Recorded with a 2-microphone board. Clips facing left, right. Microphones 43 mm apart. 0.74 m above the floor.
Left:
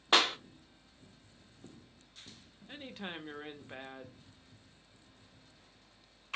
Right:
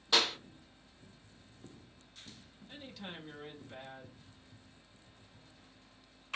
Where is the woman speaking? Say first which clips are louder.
Left 4 dB; 35° left (ahead or behind), 0.5 m.